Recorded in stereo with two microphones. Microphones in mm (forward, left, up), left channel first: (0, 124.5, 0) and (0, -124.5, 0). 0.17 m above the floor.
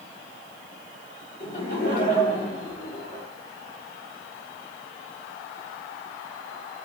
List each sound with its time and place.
1.4 s laughter: 40° left (ahead or behind), 4 m